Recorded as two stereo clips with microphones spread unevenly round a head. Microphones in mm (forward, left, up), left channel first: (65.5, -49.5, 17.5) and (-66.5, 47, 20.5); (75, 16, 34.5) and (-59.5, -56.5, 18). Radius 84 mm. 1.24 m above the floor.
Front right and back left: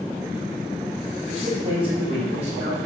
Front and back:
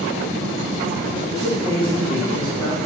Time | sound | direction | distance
1.3 | a man speaking | 85° left | 1.1 m